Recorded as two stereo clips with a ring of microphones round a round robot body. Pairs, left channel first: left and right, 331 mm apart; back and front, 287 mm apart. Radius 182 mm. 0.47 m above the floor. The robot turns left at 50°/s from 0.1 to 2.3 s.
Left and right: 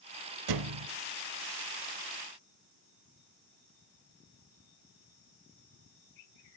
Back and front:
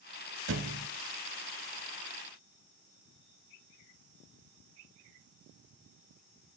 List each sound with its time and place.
0.5 s a thud: 55° right, 0.8 m; by 0.9 s 75° right, 0.8 m